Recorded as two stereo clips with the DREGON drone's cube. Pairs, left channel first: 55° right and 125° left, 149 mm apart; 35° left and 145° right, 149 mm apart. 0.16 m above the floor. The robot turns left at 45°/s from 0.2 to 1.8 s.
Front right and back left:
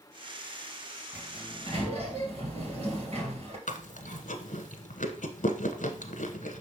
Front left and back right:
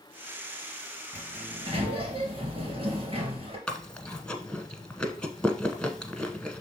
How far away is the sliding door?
About 2.5 m.